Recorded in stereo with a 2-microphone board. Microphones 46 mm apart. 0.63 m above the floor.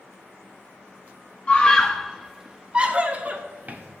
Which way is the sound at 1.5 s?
25° left (ahead or behind).